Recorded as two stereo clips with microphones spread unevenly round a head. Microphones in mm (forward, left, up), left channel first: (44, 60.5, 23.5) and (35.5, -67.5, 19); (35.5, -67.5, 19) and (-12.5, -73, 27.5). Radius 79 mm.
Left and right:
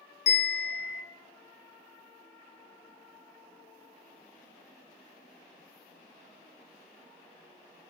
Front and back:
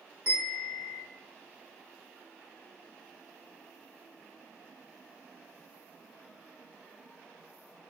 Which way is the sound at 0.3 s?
120° left.